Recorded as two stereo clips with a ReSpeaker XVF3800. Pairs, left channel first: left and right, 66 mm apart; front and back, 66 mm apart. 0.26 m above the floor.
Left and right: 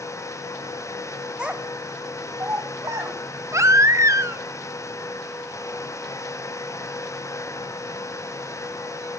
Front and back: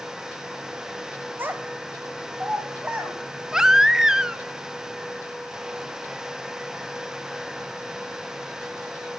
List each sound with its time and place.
1.4 s a child speaking: 150° right, 0.6 m; by 3.2 s 105° right, 1.3 m
3.5 s a baby crying: 100° right, 0.6 m